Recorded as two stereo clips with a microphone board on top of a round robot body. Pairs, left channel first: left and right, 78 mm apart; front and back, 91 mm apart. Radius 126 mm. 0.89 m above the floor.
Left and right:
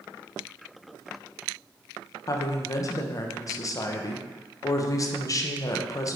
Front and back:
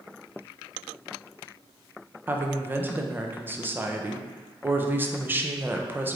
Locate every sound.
2.3 s a woman speaking: 120° left, 0.6 m